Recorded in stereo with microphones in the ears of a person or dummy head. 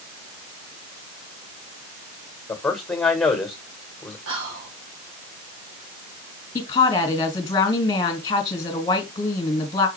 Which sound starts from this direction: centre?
A man speaking, at 2.5 s.